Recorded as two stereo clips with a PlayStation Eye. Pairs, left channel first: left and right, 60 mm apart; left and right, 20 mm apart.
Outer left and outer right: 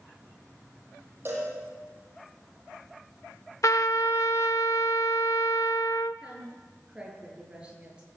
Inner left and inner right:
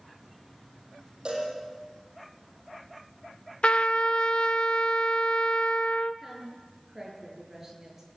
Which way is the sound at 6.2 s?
15° right (ahead or behind).